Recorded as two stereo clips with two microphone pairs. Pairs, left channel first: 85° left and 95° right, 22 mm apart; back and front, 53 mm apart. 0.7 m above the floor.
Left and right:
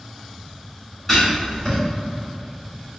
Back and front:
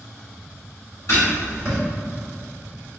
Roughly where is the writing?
Behind.